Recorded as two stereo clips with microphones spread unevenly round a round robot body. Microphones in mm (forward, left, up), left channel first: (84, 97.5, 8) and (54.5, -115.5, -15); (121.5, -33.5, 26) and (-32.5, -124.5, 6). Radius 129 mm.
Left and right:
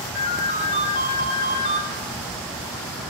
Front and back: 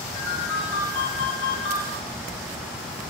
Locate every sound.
0.1 s a ringtone: 40° left, 4.5 m